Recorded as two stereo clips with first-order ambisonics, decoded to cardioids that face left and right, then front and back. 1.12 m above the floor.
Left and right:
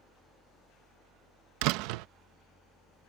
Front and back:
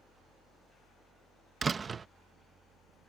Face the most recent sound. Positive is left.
turn(degrees=-105)